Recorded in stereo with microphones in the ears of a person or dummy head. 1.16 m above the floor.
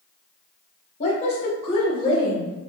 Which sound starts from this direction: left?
A woman speaking, at 1.0 s.